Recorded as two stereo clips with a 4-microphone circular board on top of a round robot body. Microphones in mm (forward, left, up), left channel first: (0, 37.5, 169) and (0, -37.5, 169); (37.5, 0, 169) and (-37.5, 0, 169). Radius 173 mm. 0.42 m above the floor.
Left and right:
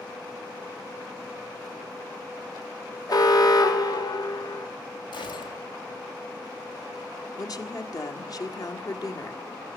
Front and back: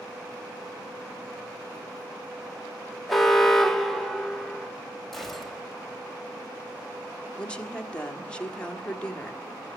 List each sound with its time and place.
3.1 s an alarm: 85° left, 1.8 m
5.1 s a gunshot: 85° left, 2 m
7.4 s a woman speaking: 75° left, 1.9 m